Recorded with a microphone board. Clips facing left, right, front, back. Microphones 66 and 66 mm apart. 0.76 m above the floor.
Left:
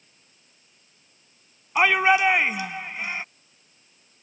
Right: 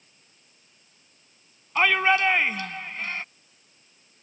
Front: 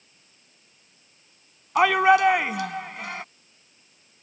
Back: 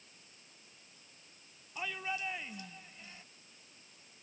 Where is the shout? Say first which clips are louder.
Left 2 dB, front 23 dB; 10° left.